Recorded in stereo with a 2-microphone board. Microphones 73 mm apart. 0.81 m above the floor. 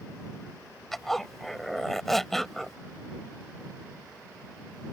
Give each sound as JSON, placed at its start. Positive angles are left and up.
{"t": 0.9, "sound": "a zipper", "side_deg": 5}